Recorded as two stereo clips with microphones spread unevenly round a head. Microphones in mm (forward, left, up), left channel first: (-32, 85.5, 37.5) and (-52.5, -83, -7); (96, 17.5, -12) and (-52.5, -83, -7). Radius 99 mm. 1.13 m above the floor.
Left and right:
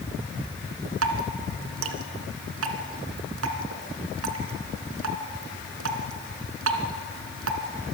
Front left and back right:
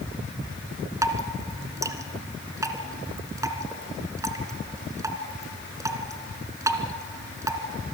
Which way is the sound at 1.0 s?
75° right.